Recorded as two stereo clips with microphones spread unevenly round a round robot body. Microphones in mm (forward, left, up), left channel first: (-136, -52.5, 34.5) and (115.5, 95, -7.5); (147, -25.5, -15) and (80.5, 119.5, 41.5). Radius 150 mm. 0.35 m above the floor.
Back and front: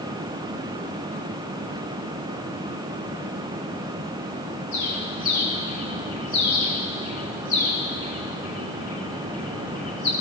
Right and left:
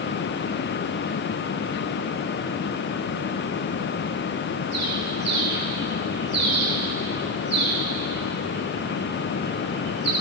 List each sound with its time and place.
4.7 s a bird: 135° right, 5.5 m